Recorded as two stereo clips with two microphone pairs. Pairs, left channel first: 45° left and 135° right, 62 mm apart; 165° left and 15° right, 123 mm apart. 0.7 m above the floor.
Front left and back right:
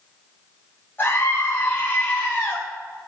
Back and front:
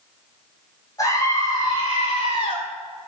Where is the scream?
105° left, 4 m; by 2.6 s 130° left, 6 m.